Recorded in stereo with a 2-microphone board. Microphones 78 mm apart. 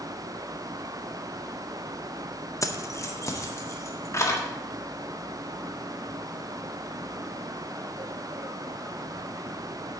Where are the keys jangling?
40° left (ahead or behind), 0.6 m; by 4.4 s 35° left (ahead or behind), 1.8 m.